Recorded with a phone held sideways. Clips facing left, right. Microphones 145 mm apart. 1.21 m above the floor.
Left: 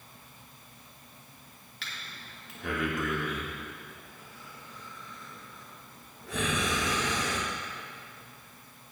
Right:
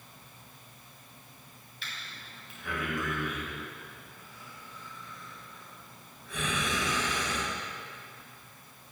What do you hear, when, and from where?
1.8 s breathing: 80° left, 2.5 m